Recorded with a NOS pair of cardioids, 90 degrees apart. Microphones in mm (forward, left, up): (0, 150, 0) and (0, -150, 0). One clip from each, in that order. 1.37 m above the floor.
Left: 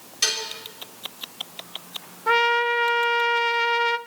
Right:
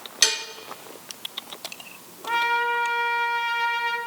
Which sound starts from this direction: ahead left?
A trumpet, at 2.3 s.